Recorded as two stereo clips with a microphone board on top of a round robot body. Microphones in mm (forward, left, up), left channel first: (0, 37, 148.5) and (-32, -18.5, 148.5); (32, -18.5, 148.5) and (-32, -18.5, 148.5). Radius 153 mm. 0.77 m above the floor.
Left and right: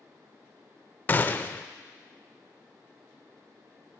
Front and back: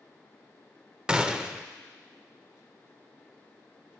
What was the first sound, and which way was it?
A gunshot, 110° left.